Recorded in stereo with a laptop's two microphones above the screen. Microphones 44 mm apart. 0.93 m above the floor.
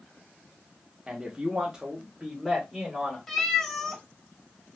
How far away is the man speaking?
About 0.8 m.